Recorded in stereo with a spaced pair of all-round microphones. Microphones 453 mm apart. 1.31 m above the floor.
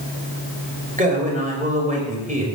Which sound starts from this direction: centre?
A man speaking, at 1.0 s.